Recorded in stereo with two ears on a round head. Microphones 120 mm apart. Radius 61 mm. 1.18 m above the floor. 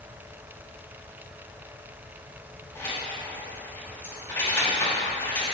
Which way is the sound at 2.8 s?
20° left (ahead or behind).